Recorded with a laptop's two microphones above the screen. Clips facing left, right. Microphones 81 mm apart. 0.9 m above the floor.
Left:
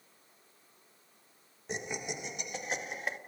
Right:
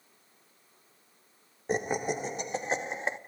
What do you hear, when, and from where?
1.7 s laughter: 40° right (ahead or behind), 1.2 m; by 3.2 s 25° right (ahead or behind), 1.9 m